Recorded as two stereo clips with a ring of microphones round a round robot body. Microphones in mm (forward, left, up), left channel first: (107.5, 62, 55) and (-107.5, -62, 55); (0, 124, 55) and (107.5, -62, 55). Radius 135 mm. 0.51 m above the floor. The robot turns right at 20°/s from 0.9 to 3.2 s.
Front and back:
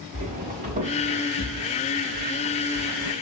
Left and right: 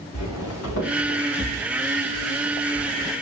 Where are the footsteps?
145° left, 4 m; by 3.1 s 160° right, 2 m.